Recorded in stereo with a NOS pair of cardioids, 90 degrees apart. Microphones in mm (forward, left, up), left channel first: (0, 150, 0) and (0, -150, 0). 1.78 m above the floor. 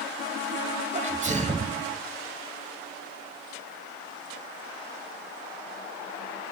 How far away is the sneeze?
About 1.7 m.